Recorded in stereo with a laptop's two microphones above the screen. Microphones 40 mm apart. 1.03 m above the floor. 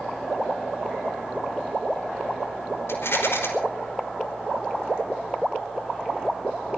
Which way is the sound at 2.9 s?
80° left.